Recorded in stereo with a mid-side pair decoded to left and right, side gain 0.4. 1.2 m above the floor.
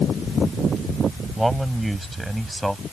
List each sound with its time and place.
1.4 s a man speaking: 10° right; by 2.8 s 5° right